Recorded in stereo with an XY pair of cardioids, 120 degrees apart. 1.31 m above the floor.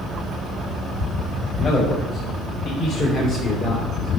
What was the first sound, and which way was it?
A man speaking, 50° left.